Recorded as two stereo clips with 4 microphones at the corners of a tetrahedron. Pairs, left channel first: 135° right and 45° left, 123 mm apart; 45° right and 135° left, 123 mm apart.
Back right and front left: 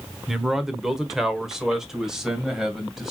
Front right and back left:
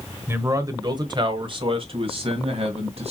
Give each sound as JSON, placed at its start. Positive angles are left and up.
{"t": 0.3, "sound": "a man speaking", "azimuth_deg": 125, "distance_m": 1.0}